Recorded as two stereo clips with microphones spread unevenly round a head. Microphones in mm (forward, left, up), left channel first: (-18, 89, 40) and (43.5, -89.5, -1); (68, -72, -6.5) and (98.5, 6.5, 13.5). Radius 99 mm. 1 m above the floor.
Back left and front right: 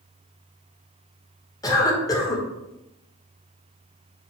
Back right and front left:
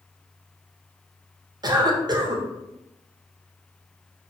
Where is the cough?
30° left, 1.1 m.